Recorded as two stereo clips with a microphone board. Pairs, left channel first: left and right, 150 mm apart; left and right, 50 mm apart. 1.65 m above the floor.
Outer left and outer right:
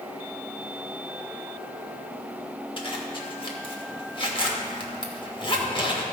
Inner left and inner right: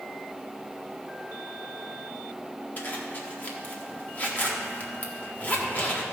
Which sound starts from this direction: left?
A zipper, at 2.8 s.